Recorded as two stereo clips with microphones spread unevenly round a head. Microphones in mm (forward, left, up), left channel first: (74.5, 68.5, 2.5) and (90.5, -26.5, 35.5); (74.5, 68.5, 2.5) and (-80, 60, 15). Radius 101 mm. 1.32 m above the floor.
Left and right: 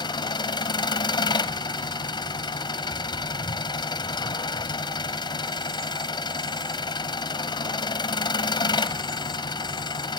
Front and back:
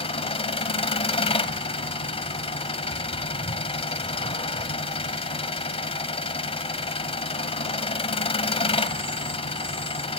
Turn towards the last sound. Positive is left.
turn(degrees=50)